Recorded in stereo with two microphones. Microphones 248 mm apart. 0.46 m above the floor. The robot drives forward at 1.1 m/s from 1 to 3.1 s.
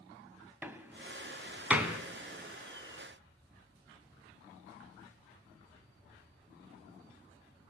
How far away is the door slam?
About 2.0 m.